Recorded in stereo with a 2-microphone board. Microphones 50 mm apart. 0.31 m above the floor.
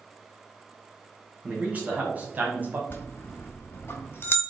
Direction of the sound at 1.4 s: 25° right (ahead or behind).